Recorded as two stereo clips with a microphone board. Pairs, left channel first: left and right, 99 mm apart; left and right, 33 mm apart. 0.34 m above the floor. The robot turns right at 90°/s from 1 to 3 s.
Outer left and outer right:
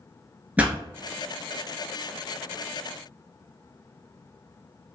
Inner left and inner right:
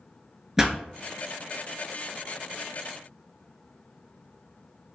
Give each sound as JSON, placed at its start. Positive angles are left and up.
{"t": 0.6, "sound": "a pop", "side_deg": -15, "distance_m": 0.7}